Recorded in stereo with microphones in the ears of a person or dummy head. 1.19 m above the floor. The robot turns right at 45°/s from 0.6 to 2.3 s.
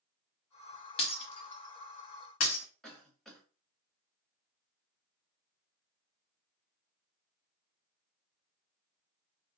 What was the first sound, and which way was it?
Breaking glass, 30° left (ahead or behind).